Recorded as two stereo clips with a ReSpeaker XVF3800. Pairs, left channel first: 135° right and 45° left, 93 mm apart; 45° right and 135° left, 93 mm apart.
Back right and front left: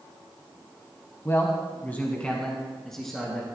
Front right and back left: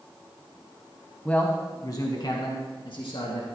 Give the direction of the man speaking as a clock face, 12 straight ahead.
4 o'clock.